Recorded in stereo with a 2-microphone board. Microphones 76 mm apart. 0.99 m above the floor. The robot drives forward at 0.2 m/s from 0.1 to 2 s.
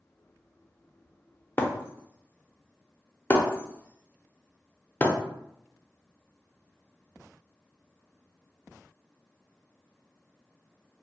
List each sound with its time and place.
1.6 s breaking glass: 25° left (ahead or behind), 0.6 m